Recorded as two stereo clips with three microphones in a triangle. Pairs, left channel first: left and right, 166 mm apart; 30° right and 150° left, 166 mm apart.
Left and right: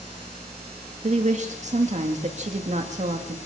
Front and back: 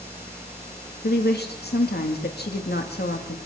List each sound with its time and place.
1.0 s a woman speaking: 45° right, 2 m